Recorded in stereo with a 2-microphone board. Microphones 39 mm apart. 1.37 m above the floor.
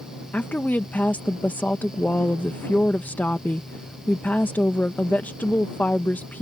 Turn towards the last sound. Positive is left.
turn(degrees=45)  # may be behind; listen again after turning